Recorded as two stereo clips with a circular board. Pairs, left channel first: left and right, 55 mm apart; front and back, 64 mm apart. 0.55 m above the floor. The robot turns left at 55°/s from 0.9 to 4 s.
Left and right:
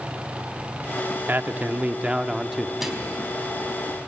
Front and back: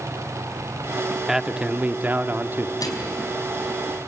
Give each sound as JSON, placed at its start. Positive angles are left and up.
{"t": 1.3, "sound": "a man speaking", "azimuth_deg": -105, "distance_m": 0.8}
{"t": 2.8, "sound": "a microwave", "azimuth_deg": -5, "distance_m": 4.0}